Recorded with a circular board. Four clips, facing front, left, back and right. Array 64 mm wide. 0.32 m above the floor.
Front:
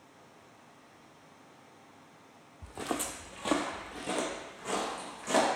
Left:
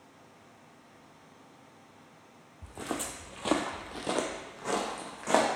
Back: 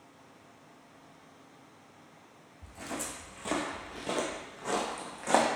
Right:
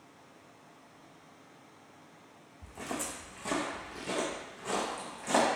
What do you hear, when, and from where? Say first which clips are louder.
2.6 s footsteps: left 2 dB, front 4 dB; 15° left, 0.6 m; by 5.5 s 130° left, 1.2 m